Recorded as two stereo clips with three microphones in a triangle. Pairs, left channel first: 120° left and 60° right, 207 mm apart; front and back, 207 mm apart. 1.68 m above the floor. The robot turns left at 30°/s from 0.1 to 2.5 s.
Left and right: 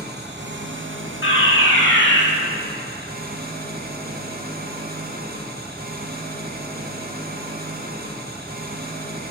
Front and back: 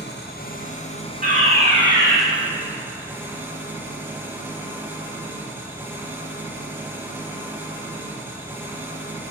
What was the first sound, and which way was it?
An engine running, 30° right.